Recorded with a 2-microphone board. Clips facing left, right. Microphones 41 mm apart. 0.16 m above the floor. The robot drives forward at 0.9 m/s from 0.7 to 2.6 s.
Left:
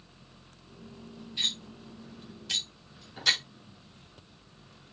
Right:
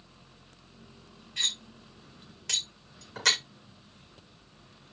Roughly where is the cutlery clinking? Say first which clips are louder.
Even; right.